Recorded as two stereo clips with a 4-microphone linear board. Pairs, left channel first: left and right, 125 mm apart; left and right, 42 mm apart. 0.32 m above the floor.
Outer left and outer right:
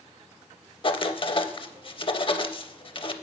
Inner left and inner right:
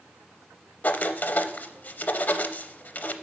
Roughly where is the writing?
Left.